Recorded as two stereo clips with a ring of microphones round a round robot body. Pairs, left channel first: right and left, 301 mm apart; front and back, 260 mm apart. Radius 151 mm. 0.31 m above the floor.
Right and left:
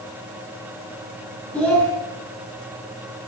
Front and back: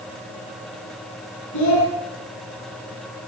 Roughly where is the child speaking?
Ahead.